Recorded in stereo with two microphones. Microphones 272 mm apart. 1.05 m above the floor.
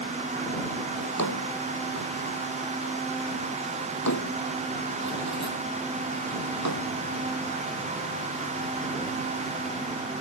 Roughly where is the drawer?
Left.